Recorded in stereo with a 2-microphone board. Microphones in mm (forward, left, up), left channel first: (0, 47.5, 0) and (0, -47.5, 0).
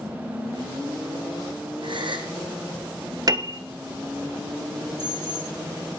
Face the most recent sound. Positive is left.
turn(degrees=-50)  # may be behind; listen again after turning